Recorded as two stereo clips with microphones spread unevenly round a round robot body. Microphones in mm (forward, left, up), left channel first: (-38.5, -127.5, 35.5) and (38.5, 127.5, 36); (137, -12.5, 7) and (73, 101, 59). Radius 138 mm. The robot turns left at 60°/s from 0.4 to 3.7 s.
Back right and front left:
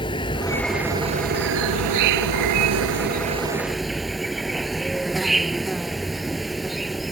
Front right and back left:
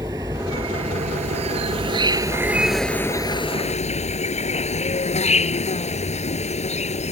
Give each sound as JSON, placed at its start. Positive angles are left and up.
{"t": 0.0, "sound": "an insect", "azimuth_deg": 180}